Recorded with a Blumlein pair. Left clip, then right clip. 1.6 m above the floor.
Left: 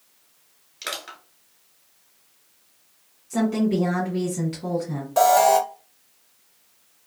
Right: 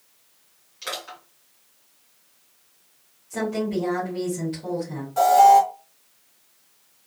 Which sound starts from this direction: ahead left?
An alarm, at 5.2 s.